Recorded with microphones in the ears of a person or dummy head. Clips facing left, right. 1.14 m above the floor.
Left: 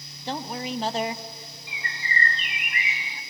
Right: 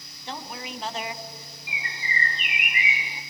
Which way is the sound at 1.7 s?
15° right (ahead or behind).